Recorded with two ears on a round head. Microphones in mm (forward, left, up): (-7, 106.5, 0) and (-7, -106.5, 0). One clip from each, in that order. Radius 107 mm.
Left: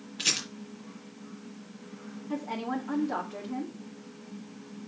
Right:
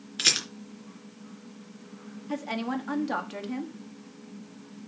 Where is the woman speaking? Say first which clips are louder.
Right 2 dB; 70° right (ahead or behind), 1.6 m.